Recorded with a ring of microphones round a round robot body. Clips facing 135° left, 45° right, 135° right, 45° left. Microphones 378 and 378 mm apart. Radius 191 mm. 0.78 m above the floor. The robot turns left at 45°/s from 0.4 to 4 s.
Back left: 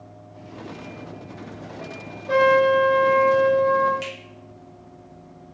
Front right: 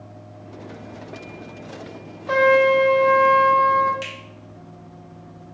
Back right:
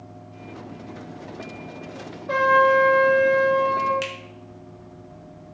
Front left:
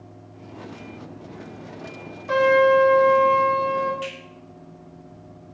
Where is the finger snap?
135° right, 0.9 m.